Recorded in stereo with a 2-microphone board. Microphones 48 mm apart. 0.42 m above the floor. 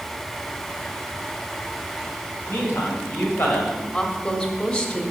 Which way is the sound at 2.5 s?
60° left (ahead or behind).